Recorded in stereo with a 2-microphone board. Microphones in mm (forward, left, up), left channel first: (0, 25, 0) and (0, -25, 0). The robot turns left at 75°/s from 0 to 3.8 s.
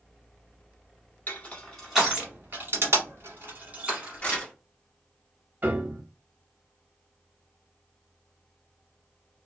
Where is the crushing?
40° left (ahead or behind), 1.3 m; by 4.4 s 30° right (ahead or behind), 1.3 m.